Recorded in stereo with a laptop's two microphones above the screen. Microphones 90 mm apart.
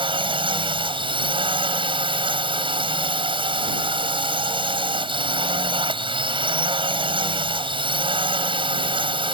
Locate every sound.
0.0 s a drone: 75° right (ahead or behind)